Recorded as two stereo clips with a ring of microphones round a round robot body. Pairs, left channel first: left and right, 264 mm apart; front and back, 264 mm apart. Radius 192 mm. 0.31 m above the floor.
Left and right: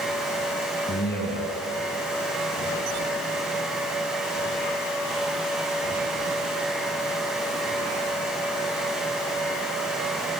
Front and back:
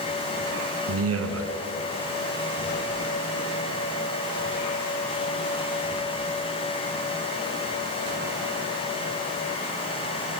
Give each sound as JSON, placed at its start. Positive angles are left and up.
{"t": 0.9, "sound": "a man speaking", "azimuth_deg": 150, "distance_m": 3.0}